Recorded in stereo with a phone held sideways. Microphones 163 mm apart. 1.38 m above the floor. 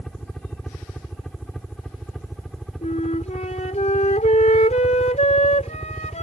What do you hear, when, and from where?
0.0 s a helicopter: 5° left (ahead or behind); by 6.2 s 5° right (ahead or behind)
2.8 s a flute: 45° left (ahead or behind)